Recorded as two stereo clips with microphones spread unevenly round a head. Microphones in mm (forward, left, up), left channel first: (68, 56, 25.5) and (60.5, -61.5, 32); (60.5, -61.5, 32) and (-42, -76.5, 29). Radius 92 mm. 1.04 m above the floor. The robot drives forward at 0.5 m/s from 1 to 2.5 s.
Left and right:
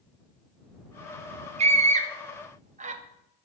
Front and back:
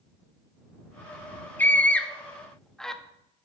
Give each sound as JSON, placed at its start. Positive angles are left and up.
{"t": 1.6, "sound": "a scream", "azimuth_deg": -65, "distance_m": 2.0}